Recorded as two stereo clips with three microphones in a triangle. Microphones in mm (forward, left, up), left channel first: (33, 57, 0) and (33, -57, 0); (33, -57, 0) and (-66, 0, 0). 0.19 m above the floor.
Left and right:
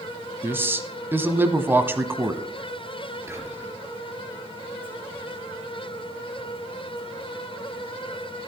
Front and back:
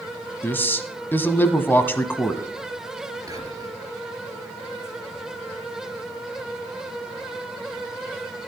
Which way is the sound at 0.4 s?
60° right.